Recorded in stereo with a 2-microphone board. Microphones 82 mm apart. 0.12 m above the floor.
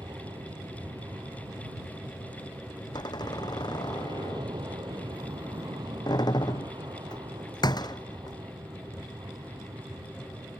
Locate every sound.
0.0 s an aircraft: 65° right (ahead or behind); by 10.6 s 55° right (ahead or behind)
2.9 s a door slam: 60° left (ahead or behind)